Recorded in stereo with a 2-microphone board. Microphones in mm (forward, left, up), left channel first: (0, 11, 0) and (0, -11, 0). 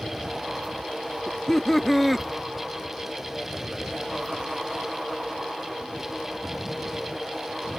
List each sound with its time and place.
1.3 s laughter: 30° left (ahead or behind); by 2.3 s 5° right (ahead or behind)